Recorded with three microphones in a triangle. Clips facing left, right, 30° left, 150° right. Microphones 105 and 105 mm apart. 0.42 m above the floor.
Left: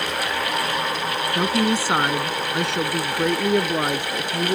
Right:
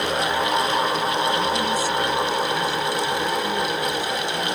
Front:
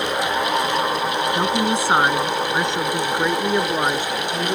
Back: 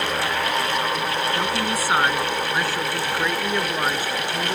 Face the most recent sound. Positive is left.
turn(degrees=100)